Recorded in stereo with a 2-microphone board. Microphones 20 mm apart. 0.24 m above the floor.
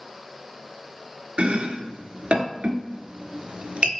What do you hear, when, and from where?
1.4 s chopping: 70° right (ahead or behind), 0.8 m